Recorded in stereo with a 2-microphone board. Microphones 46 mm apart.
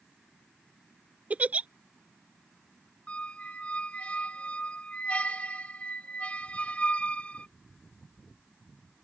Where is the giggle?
35° right (ahead or behind).